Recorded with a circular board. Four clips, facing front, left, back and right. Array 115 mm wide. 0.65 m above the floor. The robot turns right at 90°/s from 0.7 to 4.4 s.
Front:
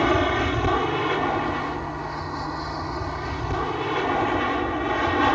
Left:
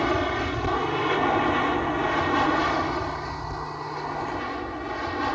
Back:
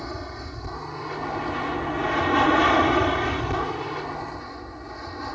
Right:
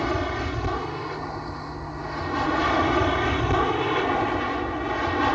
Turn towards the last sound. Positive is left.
turn(degrees=-20)